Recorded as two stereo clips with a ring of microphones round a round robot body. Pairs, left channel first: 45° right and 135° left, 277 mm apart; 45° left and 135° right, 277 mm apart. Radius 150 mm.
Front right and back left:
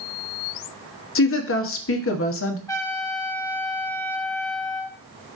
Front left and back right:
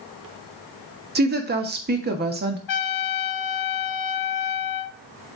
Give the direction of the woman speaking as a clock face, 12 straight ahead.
3 o'clock.